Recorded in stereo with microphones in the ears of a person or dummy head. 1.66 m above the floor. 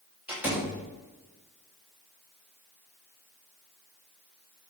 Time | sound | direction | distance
0.3 | a door slam | 5° right (ahead or behind) | 2.5 m